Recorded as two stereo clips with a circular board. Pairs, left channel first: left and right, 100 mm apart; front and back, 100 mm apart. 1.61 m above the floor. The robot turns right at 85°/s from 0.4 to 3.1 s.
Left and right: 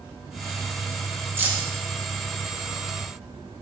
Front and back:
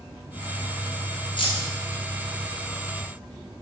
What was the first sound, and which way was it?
Keys jangling, 25° right.